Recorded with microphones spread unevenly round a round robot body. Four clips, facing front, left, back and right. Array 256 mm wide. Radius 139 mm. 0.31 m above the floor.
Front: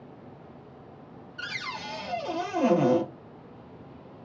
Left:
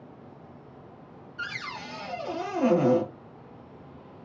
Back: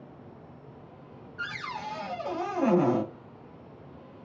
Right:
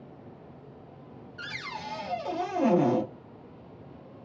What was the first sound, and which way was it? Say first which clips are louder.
A cupboard door: left 2 dB, back 1 dB; 30° right.